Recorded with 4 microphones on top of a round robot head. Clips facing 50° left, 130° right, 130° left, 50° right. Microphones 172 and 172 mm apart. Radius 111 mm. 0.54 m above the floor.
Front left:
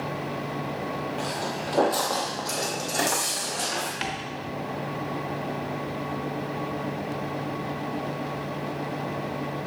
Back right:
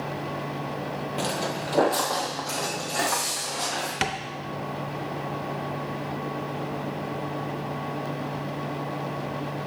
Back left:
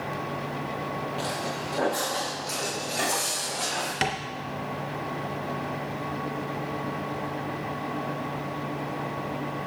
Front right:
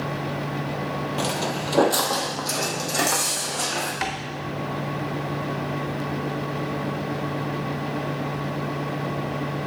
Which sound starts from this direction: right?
Footsteps, at 1.2 s.